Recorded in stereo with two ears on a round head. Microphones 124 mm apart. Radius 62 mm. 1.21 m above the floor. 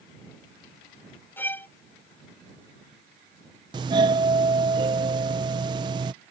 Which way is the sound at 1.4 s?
15° left (ahead or behind).